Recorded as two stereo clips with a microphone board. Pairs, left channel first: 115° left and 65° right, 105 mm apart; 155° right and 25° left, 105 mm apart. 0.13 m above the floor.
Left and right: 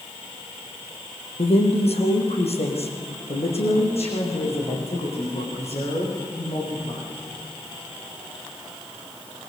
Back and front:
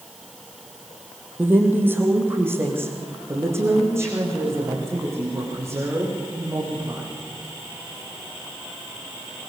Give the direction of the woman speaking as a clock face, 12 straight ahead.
9 o'clock.